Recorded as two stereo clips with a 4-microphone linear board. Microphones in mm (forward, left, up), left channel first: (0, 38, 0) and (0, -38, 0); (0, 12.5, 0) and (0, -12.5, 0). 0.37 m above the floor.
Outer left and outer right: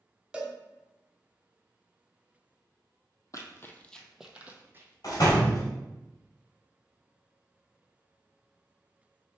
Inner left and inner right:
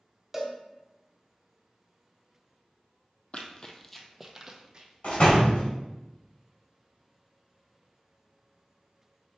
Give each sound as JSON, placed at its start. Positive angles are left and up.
{"t": 0.3, "sound": "a cowbell", "side_deg": -15, "distance_m": 0.8}
{"t": 3.3, "sound": "running footsteps", "side_deg": 50, "distance_m": 0.6}
{"t": 5.0, "sound": "a door slam", "side_deg": 55, "distance_m": 1.2}